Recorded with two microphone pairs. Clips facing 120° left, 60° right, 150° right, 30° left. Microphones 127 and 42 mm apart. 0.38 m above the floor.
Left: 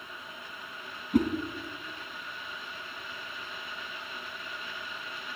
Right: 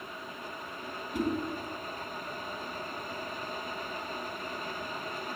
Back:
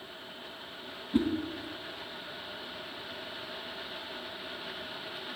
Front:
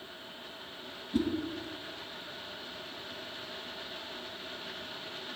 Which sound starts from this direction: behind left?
A whoosh, at 1.1 s.